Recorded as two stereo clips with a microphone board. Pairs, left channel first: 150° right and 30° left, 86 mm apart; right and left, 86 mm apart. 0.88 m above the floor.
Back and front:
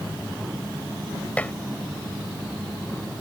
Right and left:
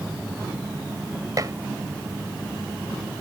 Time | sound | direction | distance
1.4 | dishes clattering | 135° left | ?